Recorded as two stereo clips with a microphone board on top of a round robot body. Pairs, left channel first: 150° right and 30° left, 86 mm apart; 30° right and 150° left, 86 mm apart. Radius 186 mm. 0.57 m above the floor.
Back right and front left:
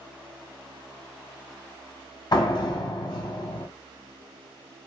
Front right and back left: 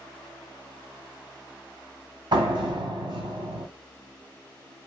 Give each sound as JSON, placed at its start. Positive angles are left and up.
{"t": 2.3, "sound": "a door slam", "azimuth_deg": 175, "distance_m": 1.4}